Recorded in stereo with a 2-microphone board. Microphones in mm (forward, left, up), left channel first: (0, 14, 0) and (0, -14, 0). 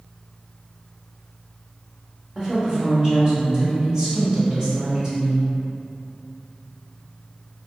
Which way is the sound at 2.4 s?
25° right (ahead or behind).